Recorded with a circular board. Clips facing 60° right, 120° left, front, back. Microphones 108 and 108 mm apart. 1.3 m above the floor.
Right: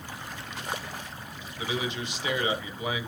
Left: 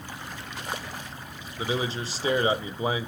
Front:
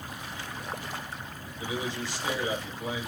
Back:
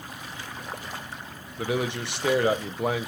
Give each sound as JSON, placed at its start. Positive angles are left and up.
{"t": 1.6, "sound": "a man speaking", "azimuth_deg": 175, "distance_m": 0.9}